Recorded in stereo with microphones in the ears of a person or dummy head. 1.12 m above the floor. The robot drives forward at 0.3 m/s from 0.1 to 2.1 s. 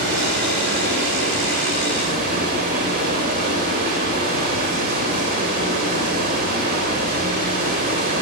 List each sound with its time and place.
0.0 s running water: 65° right (ahead or behind), 1.9 m; by 8.2 s 50° right (ahead or behind), 2 m